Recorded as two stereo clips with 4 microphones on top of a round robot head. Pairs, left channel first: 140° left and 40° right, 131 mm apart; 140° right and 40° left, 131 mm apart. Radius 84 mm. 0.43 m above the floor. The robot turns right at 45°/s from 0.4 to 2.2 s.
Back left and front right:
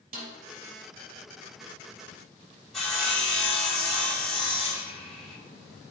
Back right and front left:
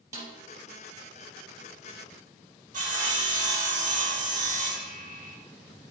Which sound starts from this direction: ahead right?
A snare drum, at 0.1 s.